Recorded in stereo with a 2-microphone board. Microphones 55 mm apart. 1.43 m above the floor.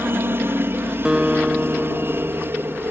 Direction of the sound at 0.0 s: 45° right (ahead or behind).